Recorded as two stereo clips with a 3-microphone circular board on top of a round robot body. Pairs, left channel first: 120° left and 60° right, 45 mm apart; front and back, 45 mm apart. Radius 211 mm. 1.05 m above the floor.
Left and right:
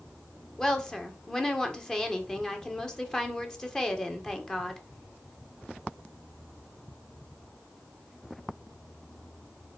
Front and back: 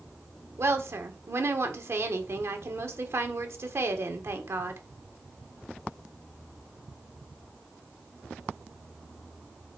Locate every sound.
0.6 s a woman speaking: 165° right, 1.7 m